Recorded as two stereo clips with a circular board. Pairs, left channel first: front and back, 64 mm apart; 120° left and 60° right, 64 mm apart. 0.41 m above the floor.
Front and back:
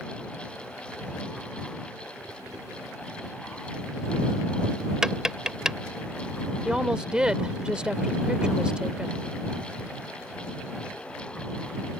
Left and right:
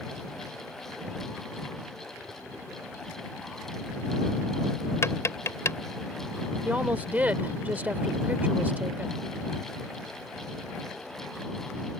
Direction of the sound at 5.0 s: 100° left.